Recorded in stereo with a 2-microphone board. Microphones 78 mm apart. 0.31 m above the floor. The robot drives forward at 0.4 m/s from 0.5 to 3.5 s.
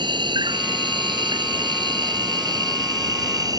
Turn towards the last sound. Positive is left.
turn(degrees=-55)  # may be behind; listen again after turning